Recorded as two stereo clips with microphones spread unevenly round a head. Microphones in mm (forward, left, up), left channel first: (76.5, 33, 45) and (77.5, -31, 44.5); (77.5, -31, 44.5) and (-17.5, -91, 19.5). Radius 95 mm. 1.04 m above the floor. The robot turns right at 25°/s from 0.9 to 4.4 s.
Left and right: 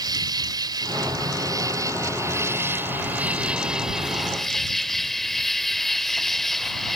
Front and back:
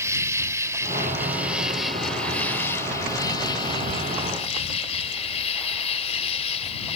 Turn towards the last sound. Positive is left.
turn(degrees=5)